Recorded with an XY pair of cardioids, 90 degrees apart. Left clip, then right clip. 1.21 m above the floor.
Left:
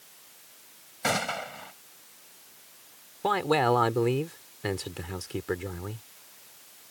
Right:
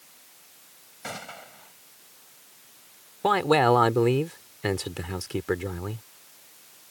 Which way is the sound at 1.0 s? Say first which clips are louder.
Left 10 dB; 65° left.